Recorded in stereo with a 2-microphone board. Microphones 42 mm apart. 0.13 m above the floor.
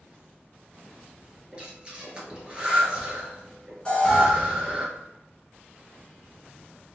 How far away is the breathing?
About 1.2 m.